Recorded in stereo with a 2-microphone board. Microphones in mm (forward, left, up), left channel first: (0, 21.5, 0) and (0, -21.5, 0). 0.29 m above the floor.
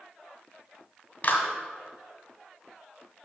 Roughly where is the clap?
Left.